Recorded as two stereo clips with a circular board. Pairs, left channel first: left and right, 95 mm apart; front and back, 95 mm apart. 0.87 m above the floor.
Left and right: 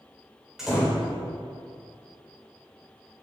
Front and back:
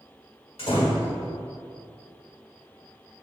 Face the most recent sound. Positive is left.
turn(degrees=-5)